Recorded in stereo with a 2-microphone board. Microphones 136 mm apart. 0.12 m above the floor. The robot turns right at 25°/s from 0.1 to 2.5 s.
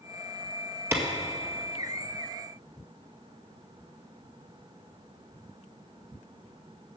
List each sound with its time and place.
0.9 s a clap: 20° right (ahead or behind), 1.9 m; by 1.0 s 15° right (ahead or behind), 1.9 m